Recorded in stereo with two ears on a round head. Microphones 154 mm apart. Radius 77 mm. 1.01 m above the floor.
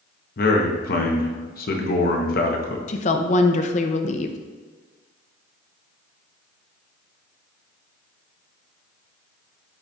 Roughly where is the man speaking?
Left.